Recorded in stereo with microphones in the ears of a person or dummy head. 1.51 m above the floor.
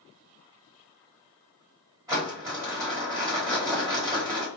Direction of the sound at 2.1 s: 10° right (ahead or behind).